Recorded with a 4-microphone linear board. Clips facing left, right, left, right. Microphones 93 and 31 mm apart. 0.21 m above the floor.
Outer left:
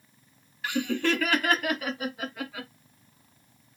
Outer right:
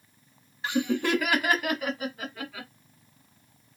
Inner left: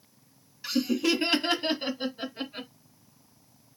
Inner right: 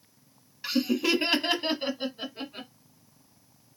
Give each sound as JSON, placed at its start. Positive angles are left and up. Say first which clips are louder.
{"t": 0.6, "sound": "laughter", "louder": "outer right 1 dB, even", "side_deg": -25, "distance_m": 1.1}